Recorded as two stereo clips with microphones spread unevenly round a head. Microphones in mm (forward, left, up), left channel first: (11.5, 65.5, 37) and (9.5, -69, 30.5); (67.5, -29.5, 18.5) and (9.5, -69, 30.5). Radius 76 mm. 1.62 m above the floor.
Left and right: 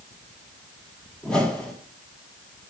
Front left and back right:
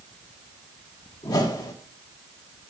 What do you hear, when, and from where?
1.2 s a whoosh: 5° left, 1.9 m